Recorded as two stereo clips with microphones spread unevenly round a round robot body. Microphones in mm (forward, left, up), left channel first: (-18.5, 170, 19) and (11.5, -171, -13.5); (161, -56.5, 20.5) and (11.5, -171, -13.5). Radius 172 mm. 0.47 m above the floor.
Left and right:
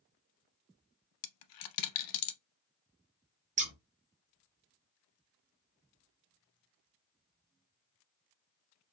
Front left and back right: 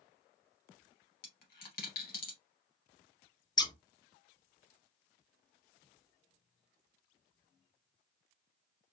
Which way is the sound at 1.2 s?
75° left.